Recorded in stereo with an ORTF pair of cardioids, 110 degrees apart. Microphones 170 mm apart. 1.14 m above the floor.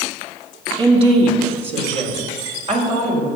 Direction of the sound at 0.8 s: 35° right.